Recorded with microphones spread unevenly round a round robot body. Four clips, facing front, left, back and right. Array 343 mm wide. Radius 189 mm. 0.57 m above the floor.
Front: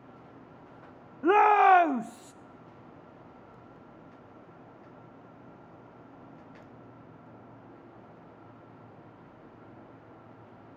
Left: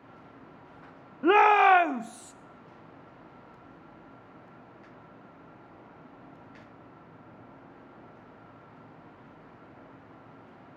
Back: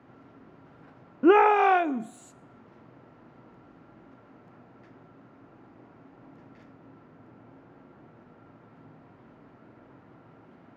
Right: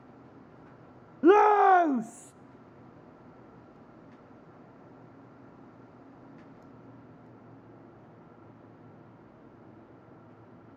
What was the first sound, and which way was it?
A shout, 150° right.